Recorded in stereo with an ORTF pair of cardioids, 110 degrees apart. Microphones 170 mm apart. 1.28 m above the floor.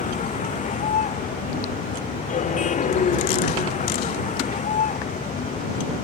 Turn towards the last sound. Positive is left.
turn(degrees=45)